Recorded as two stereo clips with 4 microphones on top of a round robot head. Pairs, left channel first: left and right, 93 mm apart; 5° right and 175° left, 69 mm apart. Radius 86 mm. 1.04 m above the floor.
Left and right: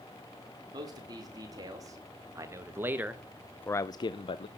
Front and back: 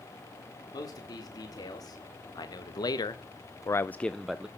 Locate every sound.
0.7 s a man speaking: 40° right, 3 m; by 4.5 s 100° left, 0.9 m